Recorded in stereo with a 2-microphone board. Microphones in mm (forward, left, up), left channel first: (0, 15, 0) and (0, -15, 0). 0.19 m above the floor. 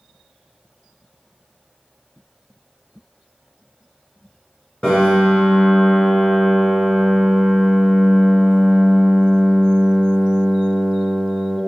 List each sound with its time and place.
4.8 s a piano: 35° left (ahead or behind), 1.8 m